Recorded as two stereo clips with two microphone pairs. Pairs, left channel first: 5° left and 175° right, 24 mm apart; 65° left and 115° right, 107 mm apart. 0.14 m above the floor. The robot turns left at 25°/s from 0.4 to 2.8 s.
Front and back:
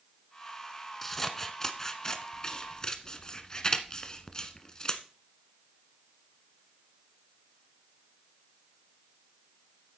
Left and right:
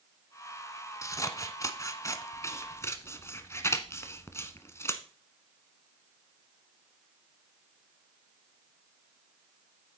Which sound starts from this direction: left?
Scissors, at 1.0 s.